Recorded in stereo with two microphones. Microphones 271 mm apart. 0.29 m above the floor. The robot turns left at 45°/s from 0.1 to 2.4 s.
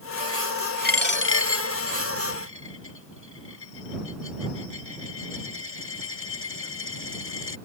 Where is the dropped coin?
35° left (ahead or behind); by 7.6 s 50° left (ahead or behind).